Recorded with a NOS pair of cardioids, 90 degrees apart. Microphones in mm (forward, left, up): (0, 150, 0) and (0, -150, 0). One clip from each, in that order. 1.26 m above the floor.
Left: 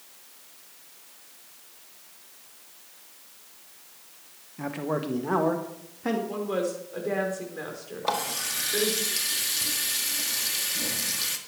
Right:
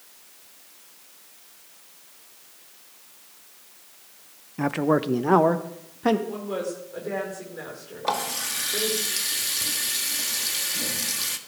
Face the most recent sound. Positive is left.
turn(degrees=-5)